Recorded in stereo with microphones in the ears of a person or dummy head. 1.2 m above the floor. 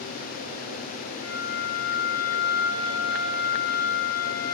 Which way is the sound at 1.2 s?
25° right (ahead or behind).